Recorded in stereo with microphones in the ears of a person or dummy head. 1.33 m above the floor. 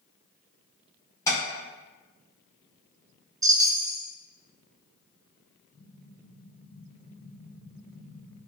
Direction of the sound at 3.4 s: 25° right (ahead or behind).